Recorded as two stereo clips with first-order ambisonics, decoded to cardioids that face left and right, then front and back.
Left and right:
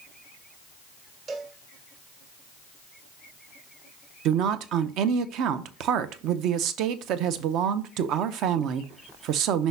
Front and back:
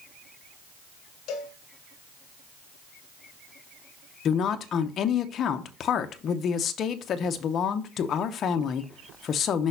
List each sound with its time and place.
1.3 s a cowbell: 35° right, 1.2 m
4.2 s a woman speaking: 55° right, 0.7 m